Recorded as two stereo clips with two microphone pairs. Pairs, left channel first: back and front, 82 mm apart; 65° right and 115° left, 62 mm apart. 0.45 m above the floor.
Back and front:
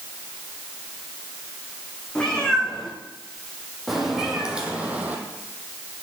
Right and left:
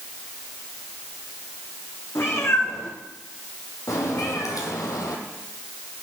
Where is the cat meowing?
100° right, 3 m; by 6.0 s 55° right, 1.7 m.